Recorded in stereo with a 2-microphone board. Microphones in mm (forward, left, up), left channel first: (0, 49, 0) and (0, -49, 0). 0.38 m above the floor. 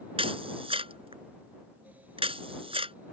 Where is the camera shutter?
80° right.